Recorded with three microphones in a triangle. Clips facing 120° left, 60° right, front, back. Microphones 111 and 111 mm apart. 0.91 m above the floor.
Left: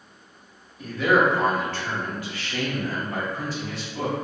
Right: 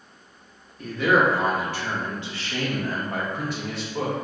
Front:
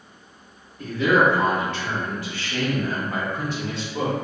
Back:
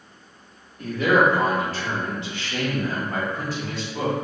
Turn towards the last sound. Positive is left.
turn(degrees=-50)